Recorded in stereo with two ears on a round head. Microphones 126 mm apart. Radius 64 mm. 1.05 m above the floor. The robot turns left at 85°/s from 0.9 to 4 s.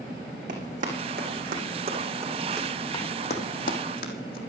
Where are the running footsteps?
55° right (ahead or behind), 4 m; by 4.4 s 70° left (ahead or behind), 3 m.